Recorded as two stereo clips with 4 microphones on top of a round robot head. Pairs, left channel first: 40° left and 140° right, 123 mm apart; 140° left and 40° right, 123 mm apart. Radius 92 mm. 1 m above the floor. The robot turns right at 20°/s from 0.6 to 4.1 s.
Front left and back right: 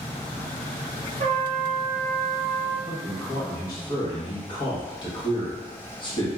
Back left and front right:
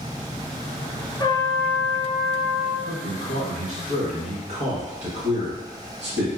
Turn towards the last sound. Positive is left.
turn(degrees=-10)